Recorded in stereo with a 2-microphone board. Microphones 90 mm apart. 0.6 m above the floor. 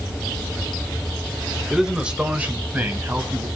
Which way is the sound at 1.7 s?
5° right (ahead or behind).